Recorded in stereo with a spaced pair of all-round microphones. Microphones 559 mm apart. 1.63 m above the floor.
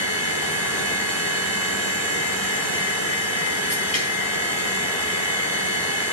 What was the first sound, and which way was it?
A machine running, 90° left.